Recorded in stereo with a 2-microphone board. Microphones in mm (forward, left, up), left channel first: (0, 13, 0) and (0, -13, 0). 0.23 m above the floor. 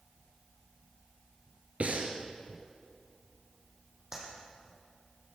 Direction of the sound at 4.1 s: 25° right (ahead or behind).